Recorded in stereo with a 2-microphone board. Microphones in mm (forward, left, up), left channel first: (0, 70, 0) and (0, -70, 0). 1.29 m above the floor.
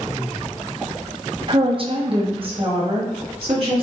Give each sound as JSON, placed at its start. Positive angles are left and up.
{"t": 1.5, "sound": "a woman speaking", "side_deg": -40, "distance_m": 0.5}